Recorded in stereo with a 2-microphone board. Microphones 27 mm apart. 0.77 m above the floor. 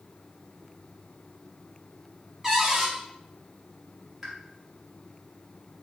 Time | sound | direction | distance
2.4 | a cupboard door | 10° right (ahead or behind) | 1.4 m
4.2 | a pop | 10° right (ahead or behind) | 1.0 m